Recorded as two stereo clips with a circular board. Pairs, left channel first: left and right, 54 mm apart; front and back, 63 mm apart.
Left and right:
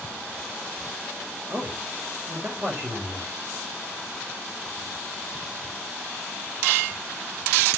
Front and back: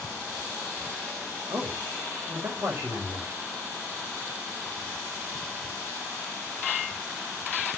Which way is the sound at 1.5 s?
135° right.